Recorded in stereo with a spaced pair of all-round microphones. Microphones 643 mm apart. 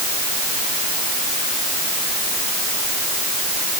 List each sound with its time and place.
Only background noise.